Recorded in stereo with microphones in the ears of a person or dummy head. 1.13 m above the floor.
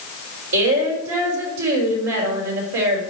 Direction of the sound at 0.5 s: 60° right (ahead or behind).